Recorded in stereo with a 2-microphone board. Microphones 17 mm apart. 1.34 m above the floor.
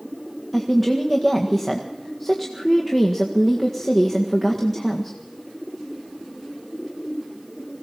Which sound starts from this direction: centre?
A woman speaking, at 0.5 s.